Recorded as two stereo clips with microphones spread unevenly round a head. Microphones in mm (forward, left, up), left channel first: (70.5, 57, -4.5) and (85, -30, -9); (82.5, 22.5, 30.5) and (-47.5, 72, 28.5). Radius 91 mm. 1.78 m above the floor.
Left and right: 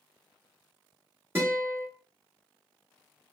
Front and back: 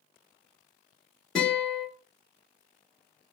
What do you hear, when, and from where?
1.4 s a guitar: 105° right, 1.3 m